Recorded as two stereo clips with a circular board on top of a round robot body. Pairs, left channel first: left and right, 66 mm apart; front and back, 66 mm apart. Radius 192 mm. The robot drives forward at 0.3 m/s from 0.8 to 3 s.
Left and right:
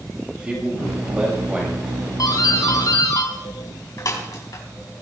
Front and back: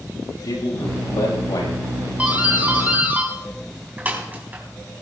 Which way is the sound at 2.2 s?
115° left.